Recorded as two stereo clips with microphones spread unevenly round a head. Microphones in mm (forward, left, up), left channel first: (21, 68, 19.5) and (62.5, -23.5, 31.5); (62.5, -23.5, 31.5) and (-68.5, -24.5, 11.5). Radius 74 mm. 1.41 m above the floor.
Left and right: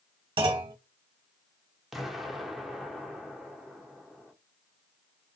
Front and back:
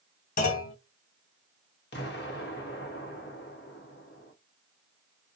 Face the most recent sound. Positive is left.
turn(degrees=20)